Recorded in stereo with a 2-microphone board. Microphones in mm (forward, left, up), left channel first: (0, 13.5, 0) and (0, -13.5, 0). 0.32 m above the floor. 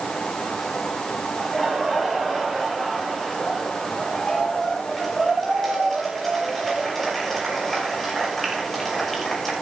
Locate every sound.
1.4 s laughter: 10° left (ahead or behind), 6.5 m